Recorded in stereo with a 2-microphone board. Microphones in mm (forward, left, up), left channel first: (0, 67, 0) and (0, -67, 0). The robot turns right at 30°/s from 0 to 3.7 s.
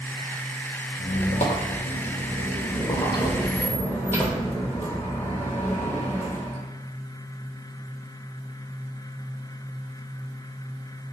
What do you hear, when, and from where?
1.0 s a squeak: 80° left, 0.5 m; by 6.6 s 165° left, 0.5 m